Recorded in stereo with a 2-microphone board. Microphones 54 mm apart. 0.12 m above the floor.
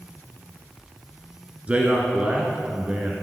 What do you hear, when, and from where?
1.7 s a man speaking: 20° right (ahead or behind), 1.2 m